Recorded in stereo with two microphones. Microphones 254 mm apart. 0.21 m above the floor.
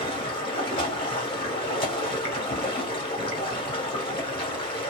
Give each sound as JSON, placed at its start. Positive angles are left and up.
{"t": 0.0, "sound": "running water", "side_deg": 20, "distance_m": 1.3}